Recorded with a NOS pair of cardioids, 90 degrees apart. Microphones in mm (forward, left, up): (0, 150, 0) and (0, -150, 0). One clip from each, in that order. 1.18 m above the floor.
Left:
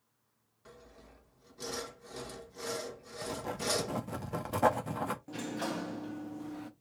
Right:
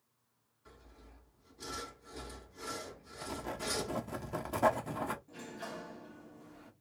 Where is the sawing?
45° left, 1.5 m.